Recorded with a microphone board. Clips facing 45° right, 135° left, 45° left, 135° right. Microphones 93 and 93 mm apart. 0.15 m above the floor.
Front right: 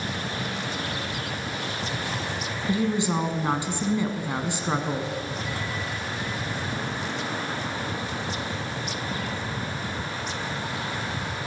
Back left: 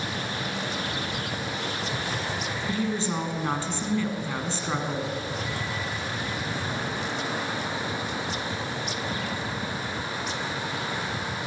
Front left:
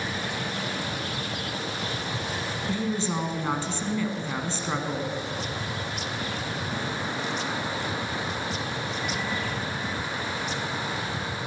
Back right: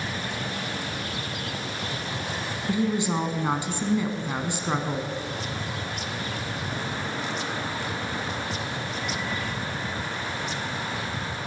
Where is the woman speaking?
90° right, 1.0 m.